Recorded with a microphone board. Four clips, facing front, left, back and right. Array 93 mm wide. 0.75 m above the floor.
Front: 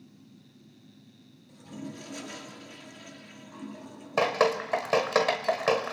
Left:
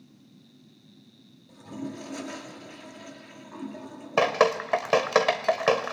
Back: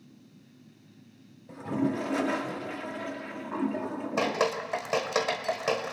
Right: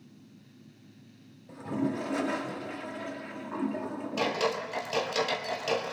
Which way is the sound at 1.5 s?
155° right.